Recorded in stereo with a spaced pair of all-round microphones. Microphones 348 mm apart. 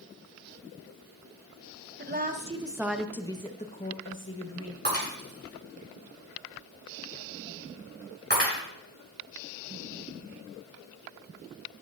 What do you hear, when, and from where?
2.0 s a woman speaking: 30° right (ahead or behind), 1.0 m; by 4.8 s 45° left (ahead or behind), 1.3 m
4.8 s breaking glass: 30° right (ahead or behind), 7 m